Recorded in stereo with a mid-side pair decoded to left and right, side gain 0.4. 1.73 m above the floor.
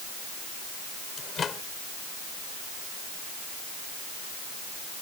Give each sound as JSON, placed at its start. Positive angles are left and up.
{"t": 1.2, "sound": "a microwave", "azimuth_deg": 55}